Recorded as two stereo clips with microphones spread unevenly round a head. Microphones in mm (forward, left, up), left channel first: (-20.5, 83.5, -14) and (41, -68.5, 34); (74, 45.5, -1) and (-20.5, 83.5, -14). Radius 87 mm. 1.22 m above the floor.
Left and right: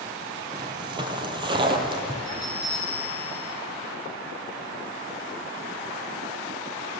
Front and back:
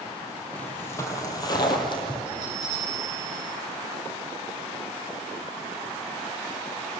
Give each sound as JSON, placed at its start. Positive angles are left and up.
{"t": 0.5, "sound": "footsteps", "azimuth_deg": -85, "distance_m": 1.5}
{"t": 2.2, "sound": "a bell", "azimuth_deg": -15, "distance_m": 8.0}